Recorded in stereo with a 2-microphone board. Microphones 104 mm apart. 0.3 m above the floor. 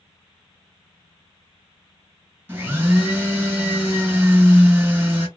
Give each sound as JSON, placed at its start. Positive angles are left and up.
{"t": 2.5, "sound": "a blender", "side_deg": -20, "distance_m": 1.7}